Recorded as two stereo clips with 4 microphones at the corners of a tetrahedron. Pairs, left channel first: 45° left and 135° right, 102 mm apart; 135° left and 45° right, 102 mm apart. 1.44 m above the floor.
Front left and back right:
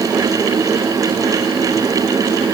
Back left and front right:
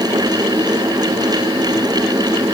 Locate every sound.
Only background noise.